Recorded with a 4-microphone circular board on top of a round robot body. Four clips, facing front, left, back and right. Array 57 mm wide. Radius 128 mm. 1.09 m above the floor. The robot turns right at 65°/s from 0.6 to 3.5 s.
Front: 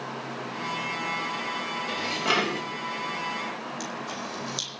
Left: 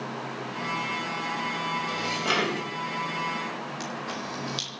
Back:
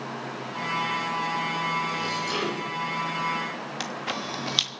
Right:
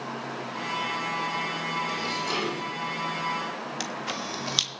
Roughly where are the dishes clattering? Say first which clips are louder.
Left 2 dB, front 2 dB; ahead.